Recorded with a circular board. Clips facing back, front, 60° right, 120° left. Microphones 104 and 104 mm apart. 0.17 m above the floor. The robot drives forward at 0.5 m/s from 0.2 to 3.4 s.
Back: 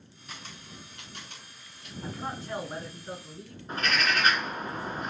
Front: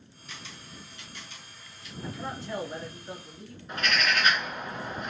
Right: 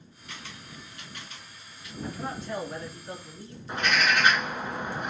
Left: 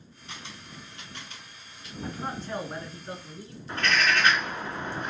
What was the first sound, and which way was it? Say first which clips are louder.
A camera shutter: even, even; 170° left.